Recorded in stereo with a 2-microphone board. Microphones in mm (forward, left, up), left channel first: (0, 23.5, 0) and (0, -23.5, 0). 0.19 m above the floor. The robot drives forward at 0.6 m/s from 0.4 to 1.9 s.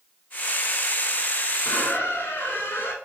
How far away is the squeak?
About 0.8 m.